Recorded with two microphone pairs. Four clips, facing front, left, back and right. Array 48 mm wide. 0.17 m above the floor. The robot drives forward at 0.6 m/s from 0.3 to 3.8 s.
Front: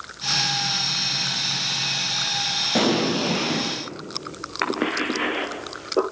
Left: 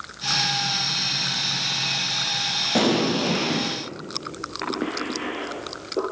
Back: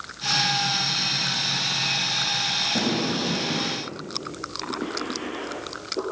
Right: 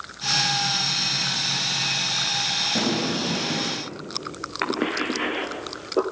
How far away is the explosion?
About 3.5 m.